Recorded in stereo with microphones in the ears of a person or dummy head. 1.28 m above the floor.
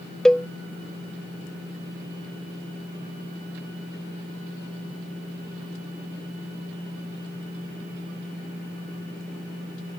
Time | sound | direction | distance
0.2 | a cowbell | 10° left (ahead or behind) | ?